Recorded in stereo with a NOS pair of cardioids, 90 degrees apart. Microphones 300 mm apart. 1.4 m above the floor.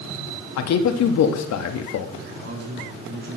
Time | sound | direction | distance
0.6 | a man speaking | 70° left | 1.2 m
2.2 | a man speaking | 40° right | 4 m